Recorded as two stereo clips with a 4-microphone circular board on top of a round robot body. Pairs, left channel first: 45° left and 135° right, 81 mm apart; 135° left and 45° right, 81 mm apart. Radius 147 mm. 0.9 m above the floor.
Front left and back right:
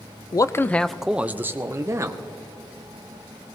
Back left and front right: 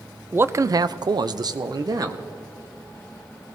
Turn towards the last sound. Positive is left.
turn(degrees=-85)